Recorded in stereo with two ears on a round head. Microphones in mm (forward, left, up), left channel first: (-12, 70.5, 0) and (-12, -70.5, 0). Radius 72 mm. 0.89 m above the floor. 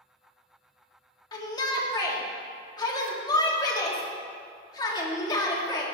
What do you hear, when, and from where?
1.3 s a shout: 25° left (ahead or behind), 1.8 m